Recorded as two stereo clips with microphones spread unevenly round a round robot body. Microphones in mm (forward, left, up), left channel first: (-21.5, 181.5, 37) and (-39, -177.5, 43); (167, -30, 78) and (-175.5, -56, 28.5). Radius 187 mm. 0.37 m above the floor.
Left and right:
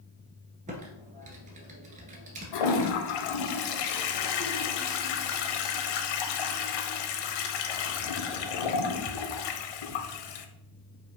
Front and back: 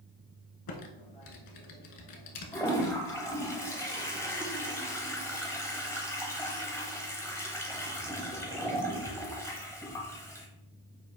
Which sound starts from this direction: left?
A toilet flushing, at 2.5 s.